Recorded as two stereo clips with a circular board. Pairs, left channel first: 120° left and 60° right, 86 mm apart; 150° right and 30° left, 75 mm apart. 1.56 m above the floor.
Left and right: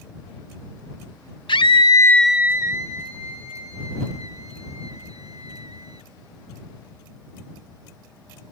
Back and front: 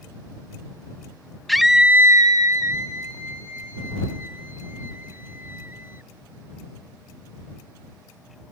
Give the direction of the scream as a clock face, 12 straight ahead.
8 o'clock.